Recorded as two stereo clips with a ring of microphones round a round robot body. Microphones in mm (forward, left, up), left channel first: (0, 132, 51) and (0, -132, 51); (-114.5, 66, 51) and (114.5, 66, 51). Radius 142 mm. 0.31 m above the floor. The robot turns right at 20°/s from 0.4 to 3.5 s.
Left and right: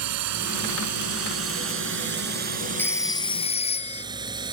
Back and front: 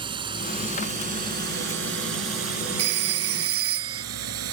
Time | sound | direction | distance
0.0 | a drone | 70° right | ?
2.8 | a phone ringing | 10° left | ?